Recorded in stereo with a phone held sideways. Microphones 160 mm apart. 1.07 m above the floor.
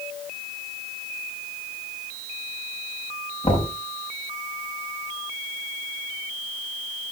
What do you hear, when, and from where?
3.4 s knocking: 45° left (ahead or behind), 5 m